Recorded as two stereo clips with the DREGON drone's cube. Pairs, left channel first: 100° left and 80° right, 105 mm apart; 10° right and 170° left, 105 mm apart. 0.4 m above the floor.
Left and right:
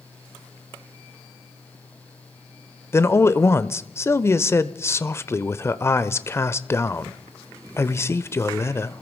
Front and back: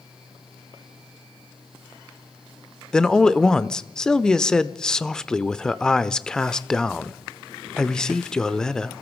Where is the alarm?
No alarm in this recording.